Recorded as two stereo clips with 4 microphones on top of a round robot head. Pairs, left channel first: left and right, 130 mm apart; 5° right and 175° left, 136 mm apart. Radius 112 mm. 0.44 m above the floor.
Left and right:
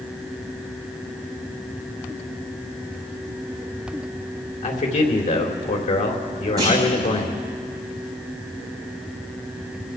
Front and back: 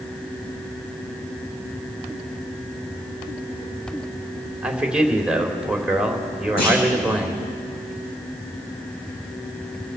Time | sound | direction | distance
4.6 | a man speaking | 90° left | 2.5 m
6.6 | a clunk | 40° right | 8.5 m